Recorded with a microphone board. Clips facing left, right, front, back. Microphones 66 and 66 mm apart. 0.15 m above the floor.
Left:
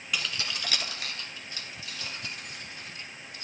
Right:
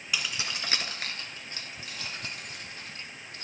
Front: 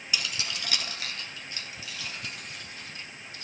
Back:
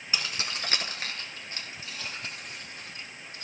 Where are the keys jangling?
170° right, 1.0 m; by 3.5 s 120° right, 4.5 m.